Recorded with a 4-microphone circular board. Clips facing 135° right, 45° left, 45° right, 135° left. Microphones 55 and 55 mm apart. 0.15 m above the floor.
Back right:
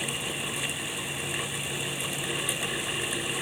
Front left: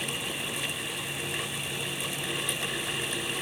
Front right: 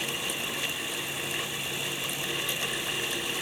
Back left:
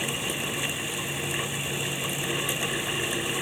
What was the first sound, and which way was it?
Only background noise.